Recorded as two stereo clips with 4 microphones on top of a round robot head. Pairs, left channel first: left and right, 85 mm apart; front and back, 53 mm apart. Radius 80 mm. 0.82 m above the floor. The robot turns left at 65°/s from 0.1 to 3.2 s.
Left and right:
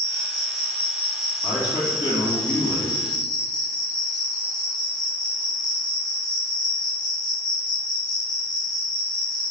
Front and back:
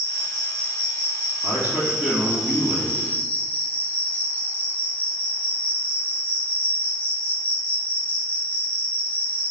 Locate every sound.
0.0 s an insect: 100° right, 1.7 m; by 9.5 s 60° left, 1.7 m
1.4 s a man speaking: 155° left, 2.0 m; by 3.0 s 55° left, 2.0 m